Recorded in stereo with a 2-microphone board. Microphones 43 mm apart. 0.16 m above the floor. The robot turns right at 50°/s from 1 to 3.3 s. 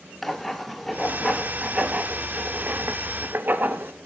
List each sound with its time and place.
0.2 s writing: 5° left (ahead or behind), 0.7 m; by 3.9 s 45° right (ahead or behind), 0.7 m